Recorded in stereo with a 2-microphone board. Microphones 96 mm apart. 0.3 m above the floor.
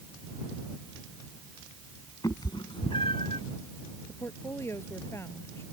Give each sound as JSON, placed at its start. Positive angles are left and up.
{"t": 2.2, "sound": "a cat meowing", "side_deg": 40}
{"t": 4.1, "sound": "a woman speaking", "side_deg": 30}